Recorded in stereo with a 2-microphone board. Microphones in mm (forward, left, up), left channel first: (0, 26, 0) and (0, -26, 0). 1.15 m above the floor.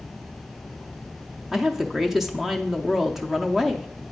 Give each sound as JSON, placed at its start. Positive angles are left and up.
{"t": 1.5, "sound": "a woman speaking", "side_deg": -5, "distance_m": 0.5}